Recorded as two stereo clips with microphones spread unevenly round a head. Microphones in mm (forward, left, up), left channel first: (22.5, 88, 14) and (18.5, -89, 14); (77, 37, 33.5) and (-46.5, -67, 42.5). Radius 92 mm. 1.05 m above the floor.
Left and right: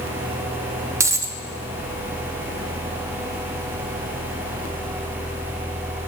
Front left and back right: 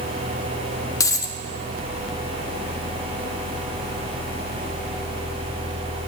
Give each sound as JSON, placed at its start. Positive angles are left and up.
{"t": 1.0, "sound": "a dropped coin", "azimuth_deg": -25, "distance_m": 0.5}